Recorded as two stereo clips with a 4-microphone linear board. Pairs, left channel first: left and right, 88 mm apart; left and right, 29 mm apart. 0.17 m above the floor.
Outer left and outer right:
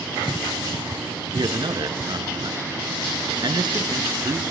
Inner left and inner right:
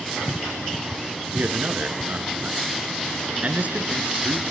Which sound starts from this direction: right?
A man speaking, at 1.3 s.